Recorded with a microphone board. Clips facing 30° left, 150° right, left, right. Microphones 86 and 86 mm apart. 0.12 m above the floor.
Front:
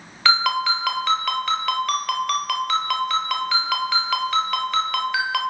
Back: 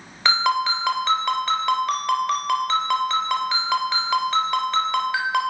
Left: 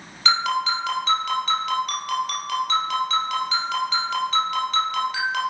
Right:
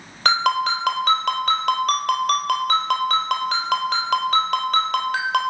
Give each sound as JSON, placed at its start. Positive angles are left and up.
{"t": 0.2, "sound": "a ringtone", "azimuth_deg": -80, "distance_m": 1.2}